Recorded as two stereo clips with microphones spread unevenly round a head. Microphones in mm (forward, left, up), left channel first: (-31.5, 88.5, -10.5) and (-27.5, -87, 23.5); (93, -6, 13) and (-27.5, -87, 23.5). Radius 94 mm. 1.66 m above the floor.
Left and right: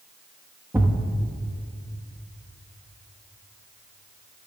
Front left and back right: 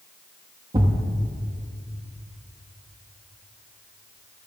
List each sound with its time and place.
0.7 s a thud: 140° right, 1.1 m